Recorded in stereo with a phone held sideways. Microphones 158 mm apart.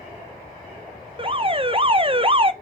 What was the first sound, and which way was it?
An alarm, 35° right (ahead or behind).